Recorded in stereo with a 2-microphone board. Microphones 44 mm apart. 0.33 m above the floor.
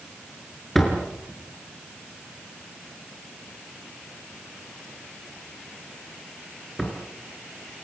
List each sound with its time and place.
0.8 s a door slam: 5° left (ahead or behind), 4.5 m